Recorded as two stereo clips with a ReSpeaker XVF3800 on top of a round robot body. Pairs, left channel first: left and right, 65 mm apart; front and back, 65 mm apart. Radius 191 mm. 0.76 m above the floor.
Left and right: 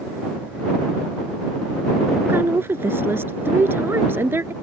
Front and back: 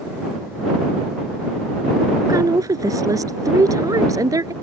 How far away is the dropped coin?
I don't hear a dropped coin.